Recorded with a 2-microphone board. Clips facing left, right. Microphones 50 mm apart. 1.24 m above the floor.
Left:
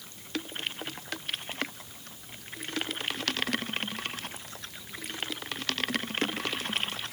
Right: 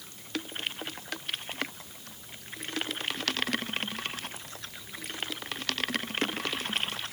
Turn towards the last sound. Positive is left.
No sound to turn to.